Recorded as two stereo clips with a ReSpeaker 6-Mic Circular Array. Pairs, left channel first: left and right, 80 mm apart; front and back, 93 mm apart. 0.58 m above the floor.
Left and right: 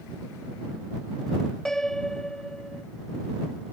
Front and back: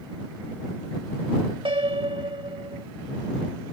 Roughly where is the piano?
Behind.